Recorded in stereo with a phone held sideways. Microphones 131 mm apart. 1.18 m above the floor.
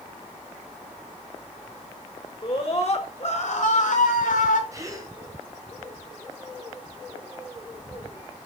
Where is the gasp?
25° right (ahead or behind), 4.5 m.